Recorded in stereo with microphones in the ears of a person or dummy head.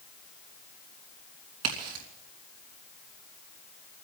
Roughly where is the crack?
Right.